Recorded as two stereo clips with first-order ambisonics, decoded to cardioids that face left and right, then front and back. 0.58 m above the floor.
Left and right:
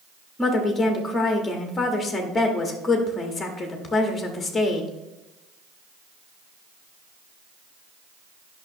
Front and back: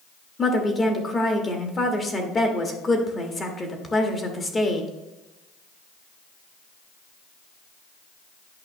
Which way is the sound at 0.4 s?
35° left.